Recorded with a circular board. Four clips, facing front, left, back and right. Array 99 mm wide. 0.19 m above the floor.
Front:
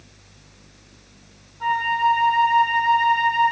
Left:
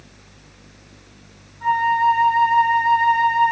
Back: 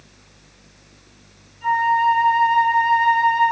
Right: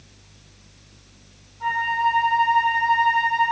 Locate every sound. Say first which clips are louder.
1.6 s a flute: left 5 dB, back 3 dB; 15° right, 4.5 m